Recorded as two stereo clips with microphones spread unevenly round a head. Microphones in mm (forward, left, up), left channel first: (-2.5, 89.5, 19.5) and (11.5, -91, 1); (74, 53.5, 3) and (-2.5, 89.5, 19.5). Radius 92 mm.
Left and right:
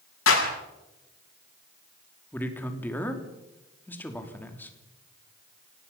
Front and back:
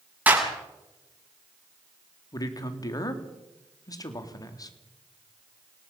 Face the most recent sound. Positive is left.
turn(degrees=15)